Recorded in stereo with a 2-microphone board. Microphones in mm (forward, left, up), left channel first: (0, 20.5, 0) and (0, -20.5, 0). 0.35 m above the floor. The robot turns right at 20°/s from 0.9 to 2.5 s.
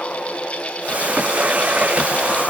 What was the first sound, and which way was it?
Only background noise.